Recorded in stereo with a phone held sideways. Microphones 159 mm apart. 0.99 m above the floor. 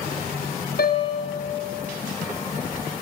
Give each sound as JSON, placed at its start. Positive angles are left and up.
{"t": 0.8, "sound": "a piano", "side_deg": 75, "distance_m": 3.0}